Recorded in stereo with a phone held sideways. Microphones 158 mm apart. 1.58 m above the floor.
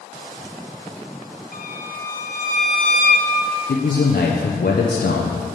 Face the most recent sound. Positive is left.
turn(degrees=70)  # may be behind; listen again after turning